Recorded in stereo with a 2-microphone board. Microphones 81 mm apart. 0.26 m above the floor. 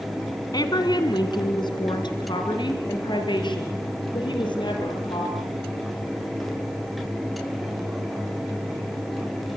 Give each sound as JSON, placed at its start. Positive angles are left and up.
{"t": 0.5, "sound": "a woman speaking", "side_deg": 55, "distance_m": 2.5}